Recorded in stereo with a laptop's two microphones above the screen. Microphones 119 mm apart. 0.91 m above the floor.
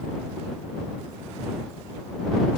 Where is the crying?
No crying in this recording.